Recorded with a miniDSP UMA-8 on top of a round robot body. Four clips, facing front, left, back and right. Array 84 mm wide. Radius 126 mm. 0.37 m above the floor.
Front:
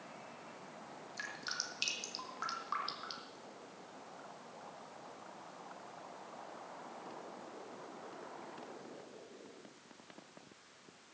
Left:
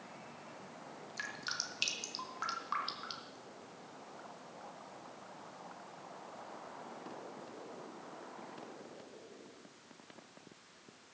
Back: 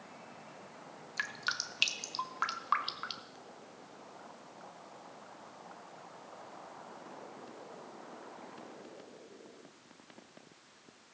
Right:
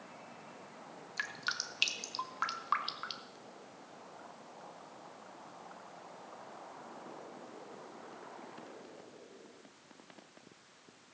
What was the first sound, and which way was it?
Dripping, 155° right.